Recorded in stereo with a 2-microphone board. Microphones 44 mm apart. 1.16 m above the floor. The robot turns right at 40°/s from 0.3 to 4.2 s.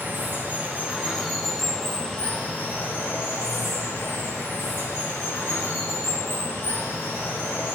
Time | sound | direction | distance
0.0 | running water | 45° right | 2.5 m